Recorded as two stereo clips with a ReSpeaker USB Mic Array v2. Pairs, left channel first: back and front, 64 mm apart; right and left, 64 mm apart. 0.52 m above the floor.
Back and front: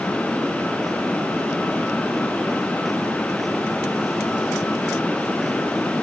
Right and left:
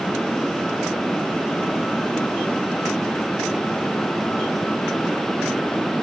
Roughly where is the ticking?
No ticking in this recording.